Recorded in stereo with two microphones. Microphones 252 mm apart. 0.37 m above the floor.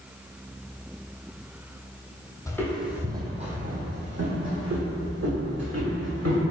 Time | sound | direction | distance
2.5 | footsteps | 15° left (ahead or behind) | 0.7 m